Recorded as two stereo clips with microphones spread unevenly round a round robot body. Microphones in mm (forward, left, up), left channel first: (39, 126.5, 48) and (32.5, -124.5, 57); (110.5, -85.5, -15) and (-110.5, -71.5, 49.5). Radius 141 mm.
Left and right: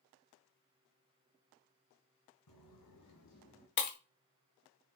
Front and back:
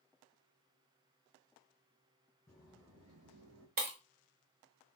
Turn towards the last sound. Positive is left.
turn(degrees=120)